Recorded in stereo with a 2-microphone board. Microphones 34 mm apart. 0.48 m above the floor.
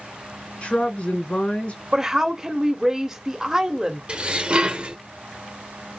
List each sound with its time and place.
0.6 s a woman speaking: 40° left (ahead or behind), 1.8 m
1.9 s a woman speaking: 15° right (ahead or behind), 1.1 m
4.1 s dishes clattering: 35° right (ahead or behind), 0.9 m